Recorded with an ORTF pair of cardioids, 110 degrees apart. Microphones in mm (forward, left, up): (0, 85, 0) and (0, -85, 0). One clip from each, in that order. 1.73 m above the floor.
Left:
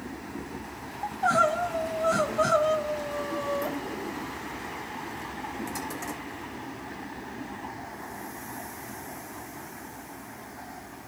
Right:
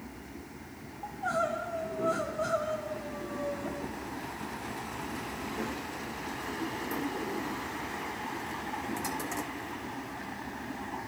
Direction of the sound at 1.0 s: 55° left.